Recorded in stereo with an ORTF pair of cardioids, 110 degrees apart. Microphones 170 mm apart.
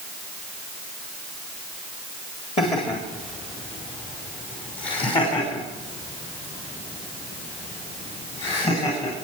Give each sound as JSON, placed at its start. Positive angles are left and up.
{"t": 2.6, "sound": "laughter", "azimuth_deg": 40, "distance_m": 3.0}